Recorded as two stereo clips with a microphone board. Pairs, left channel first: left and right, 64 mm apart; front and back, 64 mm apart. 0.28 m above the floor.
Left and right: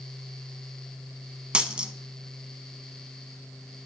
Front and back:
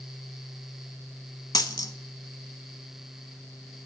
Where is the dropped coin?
15° right, 0.6 m.